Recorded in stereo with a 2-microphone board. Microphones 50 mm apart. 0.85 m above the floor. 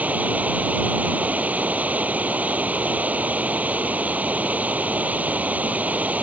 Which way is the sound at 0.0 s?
30° right (ahead or behind).